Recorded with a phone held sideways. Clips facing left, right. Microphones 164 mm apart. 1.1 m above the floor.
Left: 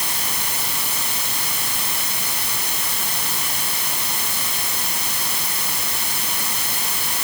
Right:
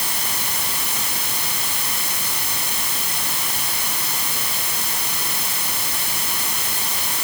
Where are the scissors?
No scissors in this recording.